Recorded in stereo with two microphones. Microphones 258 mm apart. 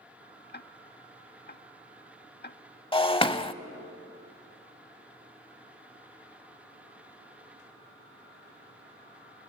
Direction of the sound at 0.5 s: 45° left (ahead or behind).